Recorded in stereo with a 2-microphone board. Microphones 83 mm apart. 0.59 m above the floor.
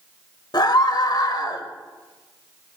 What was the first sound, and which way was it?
A scream, 60° left (ahead or behind).